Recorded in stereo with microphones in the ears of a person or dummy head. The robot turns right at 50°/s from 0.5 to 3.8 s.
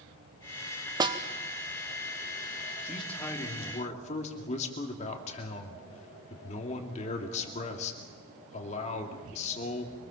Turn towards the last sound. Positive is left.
turn(degrees=40)